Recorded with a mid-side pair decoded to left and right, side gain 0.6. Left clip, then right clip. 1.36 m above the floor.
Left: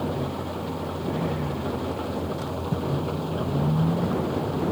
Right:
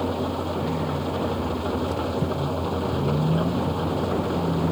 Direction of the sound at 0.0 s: 25° right.